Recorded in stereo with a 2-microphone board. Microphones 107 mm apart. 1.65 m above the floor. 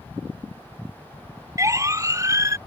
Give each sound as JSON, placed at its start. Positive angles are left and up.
{"t": 1.6, "sound": "a siren", "side_deg": -30}